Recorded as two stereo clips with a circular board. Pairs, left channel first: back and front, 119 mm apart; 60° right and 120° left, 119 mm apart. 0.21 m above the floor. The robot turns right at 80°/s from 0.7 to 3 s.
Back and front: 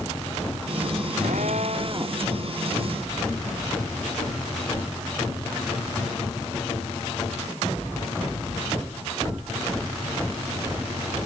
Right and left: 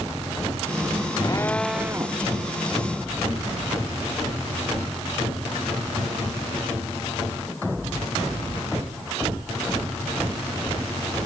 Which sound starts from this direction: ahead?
A drill, at 1.2 s.